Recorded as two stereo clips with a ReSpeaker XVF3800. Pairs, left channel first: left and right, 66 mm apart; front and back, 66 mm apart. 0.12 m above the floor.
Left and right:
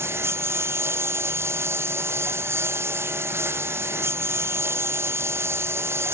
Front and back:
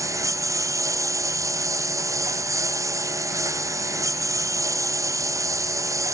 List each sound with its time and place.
0.0 s a lawn mower: 140° right